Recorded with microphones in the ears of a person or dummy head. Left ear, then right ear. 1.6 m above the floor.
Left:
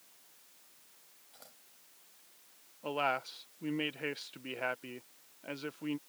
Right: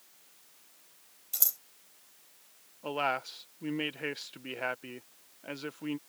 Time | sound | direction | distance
1.3 | scissors | 75° right (ahead or behind) | ?
2.8 | a man speaking | centre (ahead or behind) | ?